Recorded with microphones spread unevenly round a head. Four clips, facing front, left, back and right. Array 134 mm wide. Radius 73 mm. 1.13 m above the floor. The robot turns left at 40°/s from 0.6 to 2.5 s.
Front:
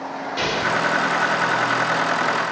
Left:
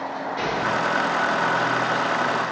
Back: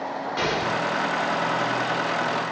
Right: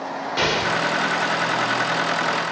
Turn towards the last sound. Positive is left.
turn(degrees=-160)